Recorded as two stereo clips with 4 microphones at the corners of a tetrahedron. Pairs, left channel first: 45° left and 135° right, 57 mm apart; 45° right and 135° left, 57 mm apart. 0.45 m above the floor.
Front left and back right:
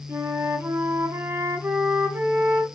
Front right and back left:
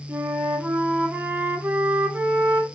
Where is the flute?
170° right, 0.5 m.